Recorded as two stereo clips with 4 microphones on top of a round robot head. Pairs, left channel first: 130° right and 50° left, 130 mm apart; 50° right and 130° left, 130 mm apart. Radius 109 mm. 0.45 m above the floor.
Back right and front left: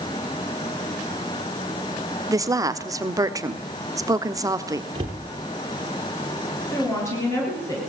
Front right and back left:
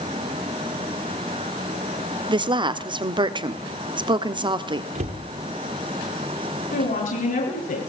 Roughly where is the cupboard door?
Left.